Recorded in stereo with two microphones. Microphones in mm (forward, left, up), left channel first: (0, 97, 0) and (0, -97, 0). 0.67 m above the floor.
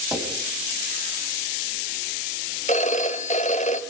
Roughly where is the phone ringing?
Left.